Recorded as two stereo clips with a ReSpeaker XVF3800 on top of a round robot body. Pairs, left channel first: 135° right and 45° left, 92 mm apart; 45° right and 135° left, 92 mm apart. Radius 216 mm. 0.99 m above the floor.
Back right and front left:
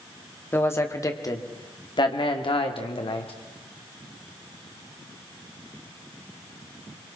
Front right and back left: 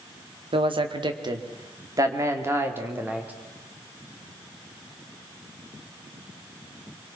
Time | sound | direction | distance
0.5 | a man speaking | 160° left | 2 m